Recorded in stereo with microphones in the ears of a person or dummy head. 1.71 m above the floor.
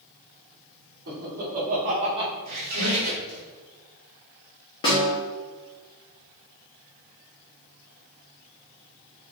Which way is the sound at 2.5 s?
45° right (ahead or behind).